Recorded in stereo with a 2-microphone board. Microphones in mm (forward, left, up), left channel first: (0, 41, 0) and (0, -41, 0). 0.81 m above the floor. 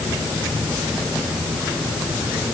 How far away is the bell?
I don't hear a bell.